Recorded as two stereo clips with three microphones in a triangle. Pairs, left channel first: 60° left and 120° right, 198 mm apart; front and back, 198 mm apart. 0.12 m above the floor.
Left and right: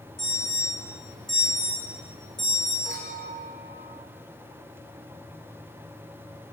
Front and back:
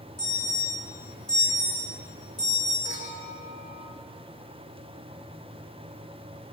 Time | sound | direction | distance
0.2 | an alarm | 70° left | 8 m
2.9 | a clink | 10° left | 6 m